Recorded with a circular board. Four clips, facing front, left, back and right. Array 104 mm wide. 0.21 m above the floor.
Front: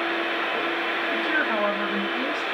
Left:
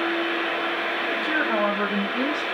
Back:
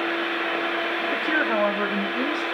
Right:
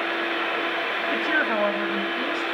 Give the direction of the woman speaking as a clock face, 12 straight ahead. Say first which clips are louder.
Right 1 dB, back 2 dB; 3 o'clock.